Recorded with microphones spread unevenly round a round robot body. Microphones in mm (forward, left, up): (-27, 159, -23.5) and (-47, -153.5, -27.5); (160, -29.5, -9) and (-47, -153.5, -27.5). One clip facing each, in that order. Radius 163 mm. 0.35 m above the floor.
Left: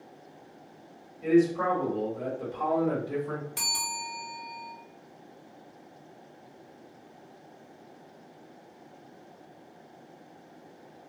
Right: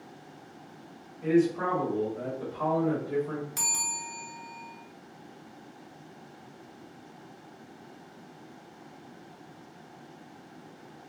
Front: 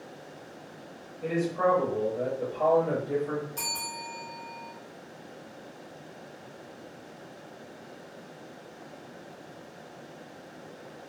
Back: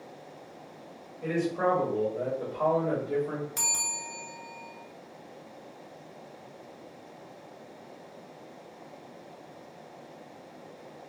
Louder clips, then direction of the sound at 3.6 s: Even, front 2 dB; 155° right.